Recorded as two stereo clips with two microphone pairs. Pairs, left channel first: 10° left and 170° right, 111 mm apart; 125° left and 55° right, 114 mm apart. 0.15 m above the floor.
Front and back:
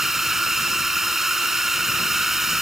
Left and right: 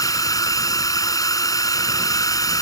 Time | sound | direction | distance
0.0 | a drone | 105° left | ?